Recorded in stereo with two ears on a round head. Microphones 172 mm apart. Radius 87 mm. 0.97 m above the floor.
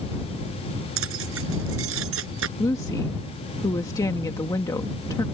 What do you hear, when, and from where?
1.0 s keys jangling: 70° right (ahead or behind)
2.6 s a woman speaking: 20° left (ahead or behind)